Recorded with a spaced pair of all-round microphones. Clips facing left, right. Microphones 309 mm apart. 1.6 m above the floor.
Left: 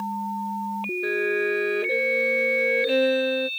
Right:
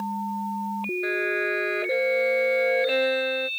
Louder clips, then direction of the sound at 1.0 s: Left 5 dB; 40° left (ahead or behind).